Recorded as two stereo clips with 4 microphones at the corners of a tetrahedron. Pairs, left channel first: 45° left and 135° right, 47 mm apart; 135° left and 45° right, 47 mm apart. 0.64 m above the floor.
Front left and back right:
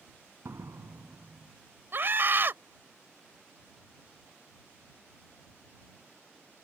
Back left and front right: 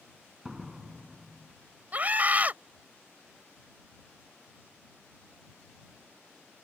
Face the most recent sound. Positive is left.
turn(degrees=-95)